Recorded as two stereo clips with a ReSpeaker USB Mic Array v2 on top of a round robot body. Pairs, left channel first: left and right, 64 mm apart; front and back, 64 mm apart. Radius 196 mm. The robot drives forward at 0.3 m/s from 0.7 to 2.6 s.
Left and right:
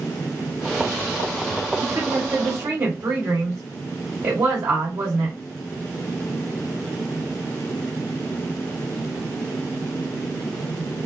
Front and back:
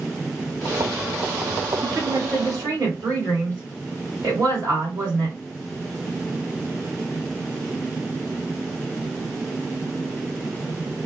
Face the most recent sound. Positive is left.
turn(degrees=-140)